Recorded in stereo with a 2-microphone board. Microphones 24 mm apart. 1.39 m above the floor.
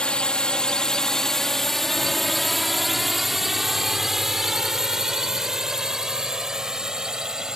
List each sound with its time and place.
0.0 s a drone: 50° left (ahead or behind); by 7.6 s 30° right (ahead or behind)